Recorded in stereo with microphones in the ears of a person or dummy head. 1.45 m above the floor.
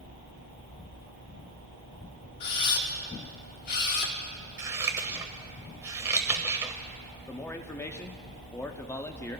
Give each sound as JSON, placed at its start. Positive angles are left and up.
{"t": 2.4, "sound": "a camera shutter", "side_deg": 50, "distance_m": 1.1}
{"t": 4.6, "sound": "scissors", "side_deg": -15, "distance_m": 0.9}
{"t": 7.3, "sound": "a man speaking", "side_deg": 15, "distance_m": 0.5}